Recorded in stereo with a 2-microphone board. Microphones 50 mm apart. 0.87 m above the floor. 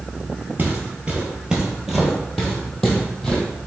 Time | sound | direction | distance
0.6 | footsteps | 35° right (ahead or behind) | 1.2 m